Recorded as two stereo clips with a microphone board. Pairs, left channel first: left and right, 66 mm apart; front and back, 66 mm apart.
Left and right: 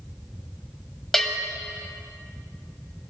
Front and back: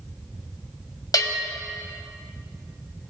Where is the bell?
5° left, 1.2 m.